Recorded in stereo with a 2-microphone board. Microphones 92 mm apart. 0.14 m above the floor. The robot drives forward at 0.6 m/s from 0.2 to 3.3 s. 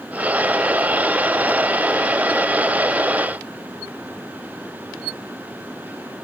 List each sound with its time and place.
Only background noise.